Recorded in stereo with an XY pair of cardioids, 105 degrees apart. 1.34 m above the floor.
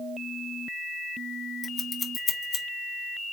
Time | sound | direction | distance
1.6 | scissors | 35° left | 1.2 m